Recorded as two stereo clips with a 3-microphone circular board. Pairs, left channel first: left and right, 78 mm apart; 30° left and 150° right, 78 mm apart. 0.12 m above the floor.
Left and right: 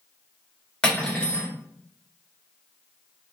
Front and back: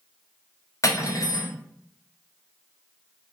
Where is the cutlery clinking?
15° left, 1.1 m.